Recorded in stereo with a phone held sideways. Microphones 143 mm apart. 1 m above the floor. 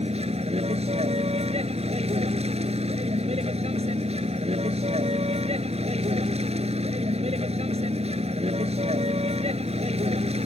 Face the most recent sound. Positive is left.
turn(degrees=-50)  # may be behind; listen again after turning